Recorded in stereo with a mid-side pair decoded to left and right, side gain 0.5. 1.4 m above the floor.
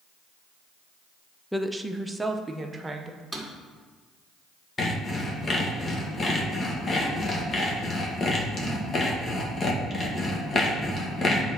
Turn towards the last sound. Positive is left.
turn(degrees=35)